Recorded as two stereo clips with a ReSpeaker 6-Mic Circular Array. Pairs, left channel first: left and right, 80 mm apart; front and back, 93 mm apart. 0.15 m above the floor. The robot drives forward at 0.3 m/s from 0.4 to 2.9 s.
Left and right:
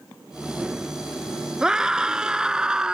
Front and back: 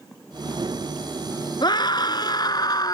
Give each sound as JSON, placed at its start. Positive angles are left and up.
{"t": 1.6, "sound": "a scream", "azimuth_deg": -10}